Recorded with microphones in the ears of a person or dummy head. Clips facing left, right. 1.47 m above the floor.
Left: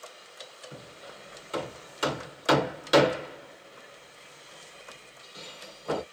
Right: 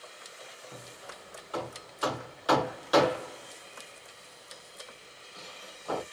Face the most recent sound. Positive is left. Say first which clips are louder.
# left 1 dB
turn(degrees=25)  # may be behind; listen again after turning